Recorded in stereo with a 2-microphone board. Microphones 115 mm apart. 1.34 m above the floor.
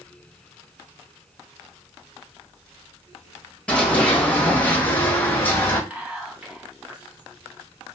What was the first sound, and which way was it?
Running footsteps, 10° left (ahead or behind).